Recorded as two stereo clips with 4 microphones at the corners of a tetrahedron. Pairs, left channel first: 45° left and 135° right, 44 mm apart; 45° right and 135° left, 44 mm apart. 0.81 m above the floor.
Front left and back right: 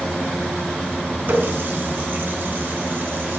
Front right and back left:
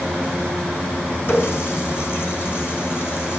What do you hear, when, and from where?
1.3 s a running tap: 85° right, 6 m